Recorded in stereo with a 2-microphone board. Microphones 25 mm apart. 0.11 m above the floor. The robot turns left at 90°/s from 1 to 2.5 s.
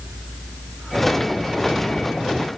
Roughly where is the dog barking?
I don't hear a dog barking.